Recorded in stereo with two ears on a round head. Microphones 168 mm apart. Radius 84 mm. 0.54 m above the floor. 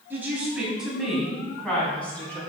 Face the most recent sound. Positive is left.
turn(degrees=10)  # may be behind; listen again after turning